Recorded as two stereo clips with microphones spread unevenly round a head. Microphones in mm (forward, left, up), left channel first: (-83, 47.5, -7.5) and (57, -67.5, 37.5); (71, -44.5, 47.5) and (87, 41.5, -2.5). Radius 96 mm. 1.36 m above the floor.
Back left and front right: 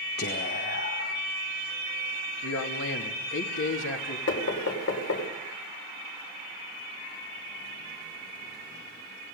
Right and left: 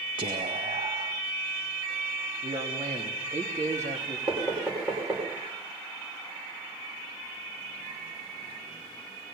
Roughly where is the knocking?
Behind.